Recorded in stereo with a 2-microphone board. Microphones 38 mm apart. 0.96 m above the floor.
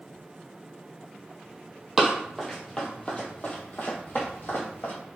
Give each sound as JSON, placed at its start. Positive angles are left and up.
{"t": 2.0, "sound": "running footsteps", "side_deg": -5, "distance_m": 1.3}